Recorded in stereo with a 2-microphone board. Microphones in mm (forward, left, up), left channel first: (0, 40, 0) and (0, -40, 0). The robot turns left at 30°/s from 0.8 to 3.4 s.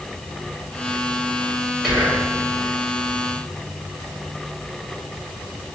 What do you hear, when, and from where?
1.8 s whispering: 5° right (ahead or behind), 1.1 m; by 2.3 s centre (ahead or behind), 1.1 m